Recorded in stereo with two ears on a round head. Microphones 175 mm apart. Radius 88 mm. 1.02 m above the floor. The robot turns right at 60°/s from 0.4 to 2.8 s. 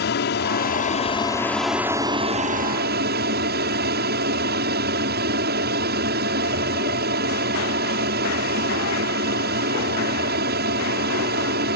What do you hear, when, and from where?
0.0 s an aircraft: 105° left; by 11.8 s 110° right